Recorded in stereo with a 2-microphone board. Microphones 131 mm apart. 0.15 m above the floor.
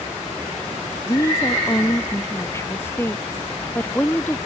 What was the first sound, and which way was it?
A woman speaking, 25° left (ahead or behind).